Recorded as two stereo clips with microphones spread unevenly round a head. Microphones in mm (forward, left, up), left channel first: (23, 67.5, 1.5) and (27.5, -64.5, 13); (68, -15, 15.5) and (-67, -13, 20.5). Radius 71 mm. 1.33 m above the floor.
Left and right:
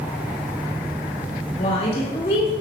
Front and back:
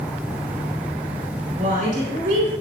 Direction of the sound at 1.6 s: 140° left.